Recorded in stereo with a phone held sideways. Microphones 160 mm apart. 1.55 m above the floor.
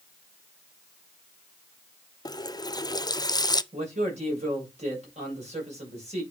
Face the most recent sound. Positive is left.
turn(degrees=-45)  # may be behind; listen again after turning